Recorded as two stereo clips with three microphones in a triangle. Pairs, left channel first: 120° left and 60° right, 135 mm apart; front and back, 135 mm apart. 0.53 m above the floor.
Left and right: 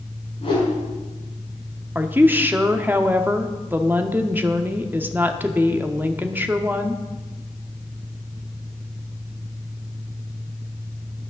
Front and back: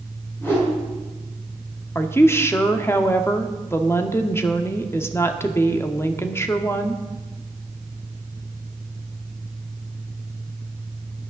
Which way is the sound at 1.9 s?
15° right.